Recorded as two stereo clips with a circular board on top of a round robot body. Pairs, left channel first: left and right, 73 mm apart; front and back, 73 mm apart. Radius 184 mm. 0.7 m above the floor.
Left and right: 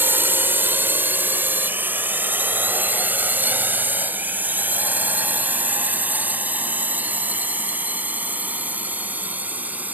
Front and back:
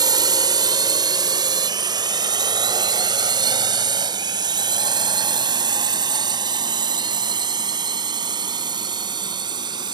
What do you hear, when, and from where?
0.0 s a drone: 155° right; by 9.9 s 160° right